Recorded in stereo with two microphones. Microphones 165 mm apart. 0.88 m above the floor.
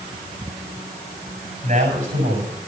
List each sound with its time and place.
1.6 s a man speaking: 55° right (ahead or behind), 6.5 m